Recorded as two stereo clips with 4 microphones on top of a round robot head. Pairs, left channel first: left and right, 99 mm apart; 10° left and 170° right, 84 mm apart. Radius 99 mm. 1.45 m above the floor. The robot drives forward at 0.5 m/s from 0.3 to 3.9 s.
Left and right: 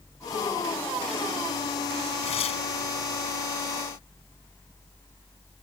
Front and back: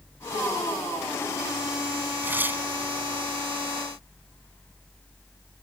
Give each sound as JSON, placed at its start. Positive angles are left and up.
{"t": 2.2, "sound": "tearing paper", "azimuth_deg": 120}